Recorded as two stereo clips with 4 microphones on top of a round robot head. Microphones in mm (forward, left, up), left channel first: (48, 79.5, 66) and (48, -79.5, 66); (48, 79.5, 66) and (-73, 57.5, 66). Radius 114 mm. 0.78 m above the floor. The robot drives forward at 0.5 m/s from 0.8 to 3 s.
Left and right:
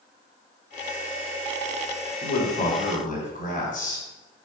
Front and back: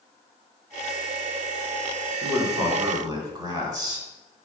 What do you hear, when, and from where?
2.2 s a man speaking: 125° left, 3.5 m; by 4.0 s 130° left, 3.5 m